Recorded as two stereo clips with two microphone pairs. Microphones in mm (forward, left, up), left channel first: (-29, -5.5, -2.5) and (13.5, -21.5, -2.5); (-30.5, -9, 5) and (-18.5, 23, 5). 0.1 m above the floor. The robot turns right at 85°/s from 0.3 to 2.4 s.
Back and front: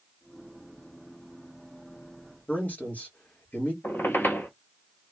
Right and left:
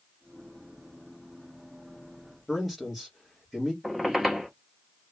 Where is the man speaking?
160° left, 2 m.